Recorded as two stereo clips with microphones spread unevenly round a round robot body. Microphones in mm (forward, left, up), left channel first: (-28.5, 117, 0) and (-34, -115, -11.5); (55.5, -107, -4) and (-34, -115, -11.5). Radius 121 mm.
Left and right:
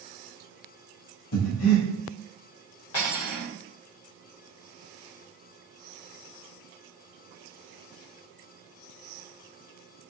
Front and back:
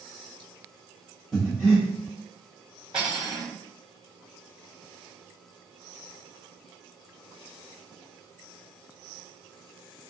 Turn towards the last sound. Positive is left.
turn(degrees=115)